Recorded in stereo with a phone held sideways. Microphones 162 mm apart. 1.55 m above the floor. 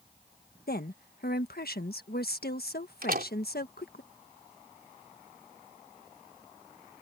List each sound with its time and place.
0.7 s a woman speaking: 70° left (ahead or behind)
3.0 s a door slam: 65° right (ahead or behind)